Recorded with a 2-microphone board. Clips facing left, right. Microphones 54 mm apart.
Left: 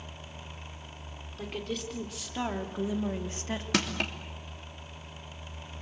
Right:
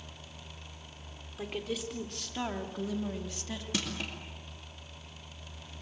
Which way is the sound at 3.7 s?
70° left (ahead or behind).